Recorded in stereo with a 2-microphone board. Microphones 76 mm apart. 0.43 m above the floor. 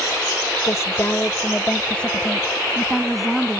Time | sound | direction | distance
0.7 | a woman speaking | 45° left (ahead or behind) | ?